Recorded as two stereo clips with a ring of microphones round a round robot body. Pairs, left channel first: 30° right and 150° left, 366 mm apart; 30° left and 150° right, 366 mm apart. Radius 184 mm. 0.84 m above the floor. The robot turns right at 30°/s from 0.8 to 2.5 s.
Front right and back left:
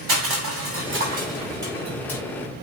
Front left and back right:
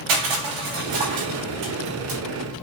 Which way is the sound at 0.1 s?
155° right.